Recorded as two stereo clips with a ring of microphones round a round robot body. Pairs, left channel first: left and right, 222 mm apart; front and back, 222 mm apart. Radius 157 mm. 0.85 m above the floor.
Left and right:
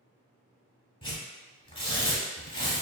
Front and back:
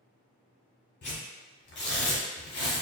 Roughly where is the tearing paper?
Ahead left.